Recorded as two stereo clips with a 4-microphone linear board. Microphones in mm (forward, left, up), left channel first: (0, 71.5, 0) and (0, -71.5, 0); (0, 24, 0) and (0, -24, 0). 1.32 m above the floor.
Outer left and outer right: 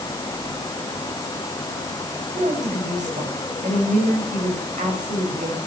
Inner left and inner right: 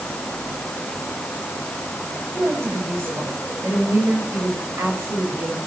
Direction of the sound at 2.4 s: 60° right (ahead or behind).